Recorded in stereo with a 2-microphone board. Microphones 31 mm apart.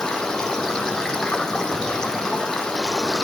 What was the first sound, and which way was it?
Running water, 20° left (ahead or behind).